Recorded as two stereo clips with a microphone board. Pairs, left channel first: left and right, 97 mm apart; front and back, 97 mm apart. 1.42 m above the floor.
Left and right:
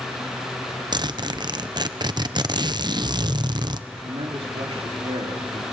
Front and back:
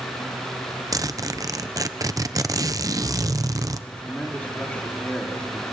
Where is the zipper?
130° right, 0.8 m.